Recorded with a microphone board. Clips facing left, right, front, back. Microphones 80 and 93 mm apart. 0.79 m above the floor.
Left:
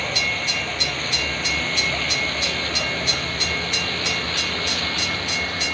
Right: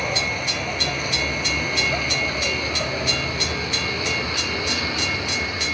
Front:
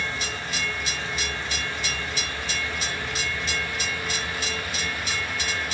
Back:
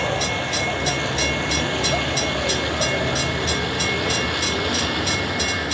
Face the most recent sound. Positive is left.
turn(degrees=-165)